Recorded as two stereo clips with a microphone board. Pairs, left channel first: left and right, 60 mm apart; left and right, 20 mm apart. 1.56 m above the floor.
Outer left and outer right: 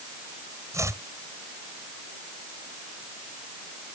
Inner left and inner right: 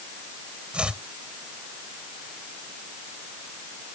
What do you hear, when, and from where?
0.7 s chopping: 65° right (ahead or behind)